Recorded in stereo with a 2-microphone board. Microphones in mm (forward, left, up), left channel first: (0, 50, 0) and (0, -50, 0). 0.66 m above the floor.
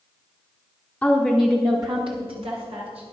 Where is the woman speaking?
15° left (ahead or behind), 1.3 m; by 3.0 s 75° right (ahead or behind), 3 m.